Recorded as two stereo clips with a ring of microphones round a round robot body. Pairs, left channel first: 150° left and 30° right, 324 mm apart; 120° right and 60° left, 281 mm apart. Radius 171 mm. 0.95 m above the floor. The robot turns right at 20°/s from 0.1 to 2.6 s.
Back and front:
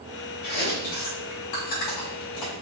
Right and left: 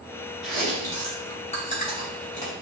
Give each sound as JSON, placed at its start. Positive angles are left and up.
{"t": 0.4, "sound": "chewing", "azimuth_deg": 150, "distance_m": 2.5}